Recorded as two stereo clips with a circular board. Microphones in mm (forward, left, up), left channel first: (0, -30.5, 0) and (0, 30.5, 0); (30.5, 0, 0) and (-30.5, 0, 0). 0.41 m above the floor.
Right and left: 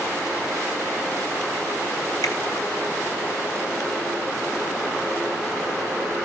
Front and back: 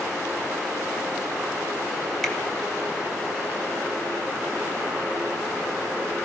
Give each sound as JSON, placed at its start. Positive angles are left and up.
{"t": 2.2, "sound": "a finger snap", "azimuth_deg": -80, "distance_m": 2.5}